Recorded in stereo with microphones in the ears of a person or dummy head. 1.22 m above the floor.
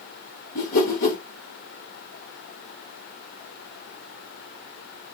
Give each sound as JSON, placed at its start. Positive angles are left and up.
{"t": 0.6, "sound": "a whoosh", "side_deg": 40, "distance_m": 1.9}